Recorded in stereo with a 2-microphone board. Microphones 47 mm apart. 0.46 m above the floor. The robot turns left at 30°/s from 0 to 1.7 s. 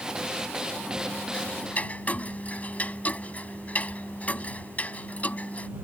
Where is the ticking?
25° left (ahead or behind); by 5.7 s 35° left (ahead or behind).